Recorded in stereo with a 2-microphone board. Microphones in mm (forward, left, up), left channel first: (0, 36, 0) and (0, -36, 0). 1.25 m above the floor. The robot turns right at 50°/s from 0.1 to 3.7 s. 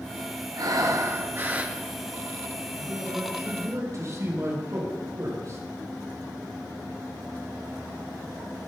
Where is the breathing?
75° right, 0.8 m; by 1.8 s 15° right, 0.8 m.